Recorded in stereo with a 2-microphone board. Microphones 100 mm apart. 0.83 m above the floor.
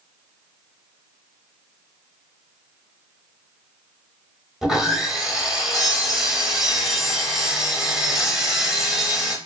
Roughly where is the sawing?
Centre.